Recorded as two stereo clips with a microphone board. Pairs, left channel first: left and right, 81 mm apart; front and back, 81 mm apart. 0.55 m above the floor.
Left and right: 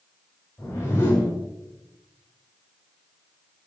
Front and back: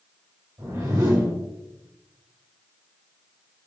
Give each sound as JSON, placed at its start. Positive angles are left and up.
{"t": 0.6, "sound": "a whoosh", "azimuth_deg": 140, "distance_m": 1.9}